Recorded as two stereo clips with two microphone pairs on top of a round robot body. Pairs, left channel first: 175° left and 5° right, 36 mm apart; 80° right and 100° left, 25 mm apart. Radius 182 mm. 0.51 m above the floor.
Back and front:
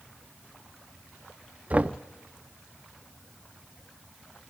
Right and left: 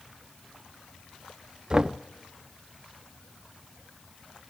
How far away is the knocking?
About 0.5 m.